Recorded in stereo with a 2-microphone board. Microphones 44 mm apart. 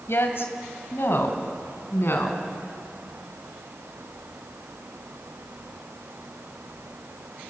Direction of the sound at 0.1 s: 65° left (ahead or behind).